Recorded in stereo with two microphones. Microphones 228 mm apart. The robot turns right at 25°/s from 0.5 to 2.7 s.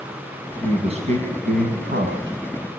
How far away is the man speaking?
About 5 m.